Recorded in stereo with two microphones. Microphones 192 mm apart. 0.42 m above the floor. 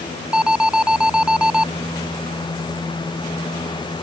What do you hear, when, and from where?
0.3 s an alarm: 5° right (ahead or behind)